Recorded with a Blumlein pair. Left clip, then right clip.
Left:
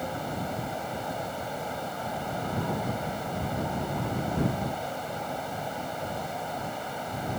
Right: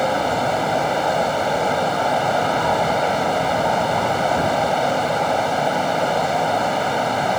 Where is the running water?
35° right.